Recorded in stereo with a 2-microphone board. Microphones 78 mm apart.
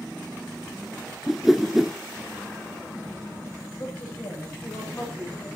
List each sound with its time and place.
1.3 s a whoosh: 5° right (ahead or behind), 0.9 m
3.8 s a woman speaking: 30° left (ahead or behind), 10 m